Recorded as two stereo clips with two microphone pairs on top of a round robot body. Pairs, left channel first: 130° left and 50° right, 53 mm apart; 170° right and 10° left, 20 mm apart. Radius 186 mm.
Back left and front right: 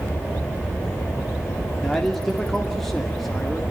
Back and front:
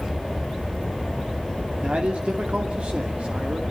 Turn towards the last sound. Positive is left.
turn(degrees=45)